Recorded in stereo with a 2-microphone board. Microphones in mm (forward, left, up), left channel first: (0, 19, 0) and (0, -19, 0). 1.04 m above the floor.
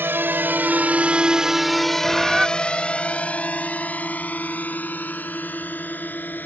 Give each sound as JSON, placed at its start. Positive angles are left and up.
{"t": 0.0, "sound": "a drone", "side_deg": -75}
{"t": 2.0, "sound": "a bird", "side_deg": -5}